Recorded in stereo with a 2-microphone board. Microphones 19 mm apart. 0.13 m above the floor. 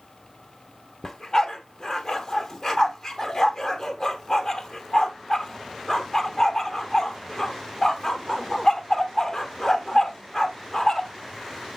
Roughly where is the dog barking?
Left.